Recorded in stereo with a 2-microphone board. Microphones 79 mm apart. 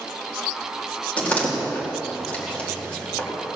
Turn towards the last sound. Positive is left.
turn(degrees=15)  # may be behind; listen again after turning